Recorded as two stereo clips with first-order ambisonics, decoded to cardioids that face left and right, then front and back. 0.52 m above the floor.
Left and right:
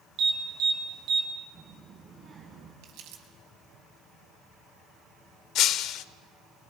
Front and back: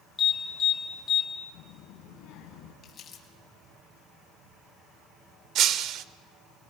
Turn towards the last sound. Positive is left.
turn(degrees=135)